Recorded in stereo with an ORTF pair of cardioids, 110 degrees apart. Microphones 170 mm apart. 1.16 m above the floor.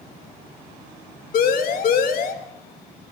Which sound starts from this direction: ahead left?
A siren, at 1.3 s.